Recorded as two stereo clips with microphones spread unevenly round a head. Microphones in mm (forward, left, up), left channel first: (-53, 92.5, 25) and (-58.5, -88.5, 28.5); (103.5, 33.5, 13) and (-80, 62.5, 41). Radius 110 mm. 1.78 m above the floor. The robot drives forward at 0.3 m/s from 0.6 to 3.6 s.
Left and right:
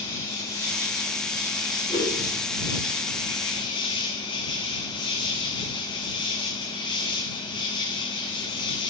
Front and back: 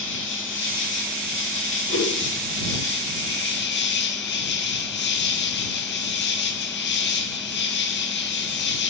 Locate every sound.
0.0 s an insect: 10° left, 2 m; by 8.9 s 20° left, 1.4 m
1.9 s a whoosh: 20° left, 7 m